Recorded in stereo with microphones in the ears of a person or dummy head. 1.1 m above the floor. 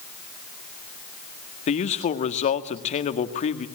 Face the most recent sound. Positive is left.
turn(degrees=35)  # may be behind; listen again after turning